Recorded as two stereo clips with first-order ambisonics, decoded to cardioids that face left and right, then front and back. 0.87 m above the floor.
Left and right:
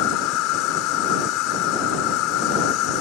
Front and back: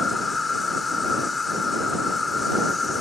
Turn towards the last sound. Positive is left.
turn(degrees=75)